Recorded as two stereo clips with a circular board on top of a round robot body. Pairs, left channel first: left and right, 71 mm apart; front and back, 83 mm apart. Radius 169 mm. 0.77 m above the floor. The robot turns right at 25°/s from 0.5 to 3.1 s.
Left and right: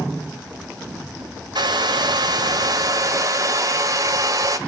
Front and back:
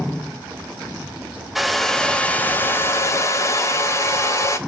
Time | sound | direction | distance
1.6 | a hair dryer | 95° right | 1.1 m